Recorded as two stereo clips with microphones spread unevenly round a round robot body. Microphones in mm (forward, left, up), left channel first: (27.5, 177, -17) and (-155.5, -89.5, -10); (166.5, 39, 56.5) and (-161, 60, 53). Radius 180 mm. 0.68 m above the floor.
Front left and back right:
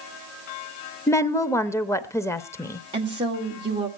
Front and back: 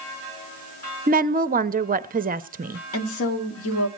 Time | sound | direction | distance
1.1 | a woman speaking | 130° left | 0.7 m
2.9 | a woman speaking | 50° right | 1.9 m